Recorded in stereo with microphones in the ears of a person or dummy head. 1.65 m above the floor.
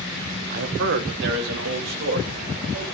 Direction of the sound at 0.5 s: 60° right (ahead or behind).